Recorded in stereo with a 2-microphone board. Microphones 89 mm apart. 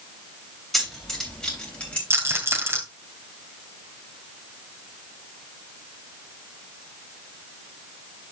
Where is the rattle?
30° right (ahead or behind), 2.5 m.